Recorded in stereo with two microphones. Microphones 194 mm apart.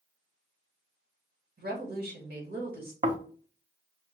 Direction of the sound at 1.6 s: 55° right (ahead or behind).